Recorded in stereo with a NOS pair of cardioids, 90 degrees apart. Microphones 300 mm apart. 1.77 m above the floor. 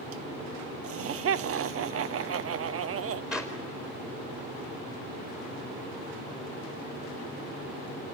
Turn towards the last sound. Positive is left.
turn(degrees=-5)